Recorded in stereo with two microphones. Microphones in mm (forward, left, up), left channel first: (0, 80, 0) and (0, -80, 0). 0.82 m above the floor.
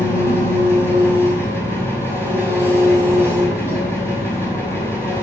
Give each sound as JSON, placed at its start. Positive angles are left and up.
{"t": 0.0, "sound": "an engine running", "side_deg": 15, "distance_m": 5.0}